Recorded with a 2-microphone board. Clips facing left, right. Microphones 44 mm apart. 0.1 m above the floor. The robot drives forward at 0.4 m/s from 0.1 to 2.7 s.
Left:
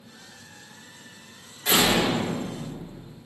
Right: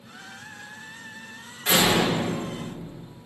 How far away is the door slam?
About 5 m.